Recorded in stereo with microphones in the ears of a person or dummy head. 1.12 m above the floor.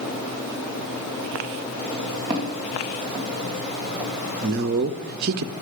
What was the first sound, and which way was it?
Footsteps, 25° right (ahead or behind).